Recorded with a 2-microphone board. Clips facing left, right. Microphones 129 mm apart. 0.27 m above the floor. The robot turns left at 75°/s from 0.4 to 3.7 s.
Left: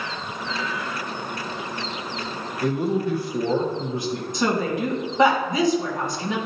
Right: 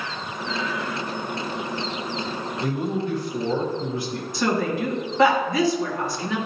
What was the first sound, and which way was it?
A man speaking, 5° right (ahead or behind).